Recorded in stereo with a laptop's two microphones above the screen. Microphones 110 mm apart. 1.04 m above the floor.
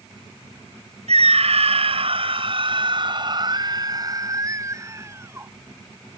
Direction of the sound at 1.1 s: 75° right (ahead or behind).